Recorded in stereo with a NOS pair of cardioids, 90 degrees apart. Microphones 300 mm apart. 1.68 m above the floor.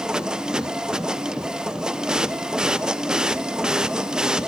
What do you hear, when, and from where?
0.0 s a machine running: straight ahead, 1.0 m